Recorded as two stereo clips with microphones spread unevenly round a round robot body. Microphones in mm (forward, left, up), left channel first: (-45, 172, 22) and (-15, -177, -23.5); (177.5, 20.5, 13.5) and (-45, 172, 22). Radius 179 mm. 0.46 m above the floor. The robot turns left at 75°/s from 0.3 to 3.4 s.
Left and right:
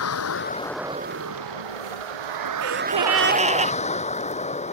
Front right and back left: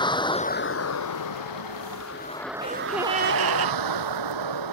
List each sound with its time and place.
0.0 s a vehicle: 40° left; by 4.7 s 170° left
2.6 s a gasp: 100° right; by 3.8 s 160° right